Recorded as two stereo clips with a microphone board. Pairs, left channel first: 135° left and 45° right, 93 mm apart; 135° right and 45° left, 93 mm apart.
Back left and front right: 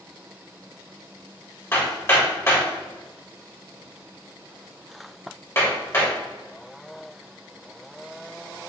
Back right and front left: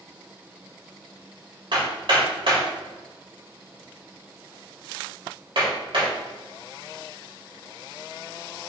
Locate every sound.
1.7 s hammering: 70° left, 3 m